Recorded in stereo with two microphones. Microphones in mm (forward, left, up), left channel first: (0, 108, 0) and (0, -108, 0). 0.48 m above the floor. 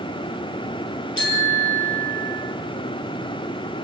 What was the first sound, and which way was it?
A bicycle bell, 70° left (ahead or behind).